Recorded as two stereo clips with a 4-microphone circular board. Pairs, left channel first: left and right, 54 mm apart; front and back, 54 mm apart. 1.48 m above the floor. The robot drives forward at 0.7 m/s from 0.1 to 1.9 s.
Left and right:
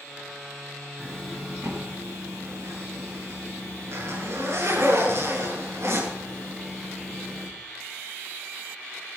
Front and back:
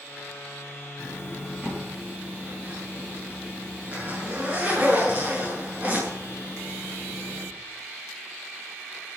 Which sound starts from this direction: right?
A zipper, at 1.0 s.